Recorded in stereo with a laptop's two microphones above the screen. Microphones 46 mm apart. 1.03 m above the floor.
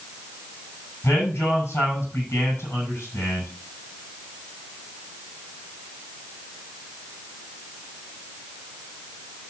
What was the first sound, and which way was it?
A man speaking, 85° left.